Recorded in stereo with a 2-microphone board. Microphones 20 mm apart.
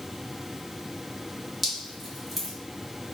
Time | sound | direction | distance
1.6 | dripping | centre (ahead or behind) | 1.8 m